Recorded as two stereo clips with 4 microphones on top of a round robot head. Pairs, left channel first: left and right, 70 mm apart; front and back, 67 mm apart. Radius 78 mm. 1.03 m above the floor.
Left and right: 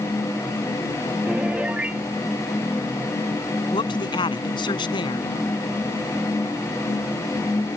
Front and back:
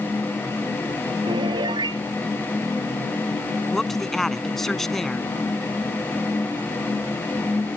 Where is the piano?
170° right.